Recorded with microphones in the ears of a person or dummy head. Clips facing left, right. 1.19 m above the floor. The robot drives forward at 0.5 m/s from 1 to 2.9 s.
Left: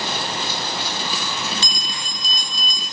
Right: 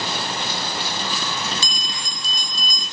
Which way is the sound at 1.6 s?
70° right (ahead or behind).